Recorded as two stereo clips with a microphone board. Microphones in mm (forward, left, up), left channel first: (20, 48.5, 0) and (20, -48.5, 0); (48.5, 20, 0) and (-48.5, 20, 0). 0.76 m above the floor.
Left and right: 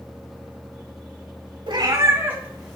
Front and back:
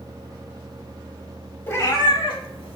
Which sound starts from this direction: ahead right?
A cat meowing, at 1.7 s.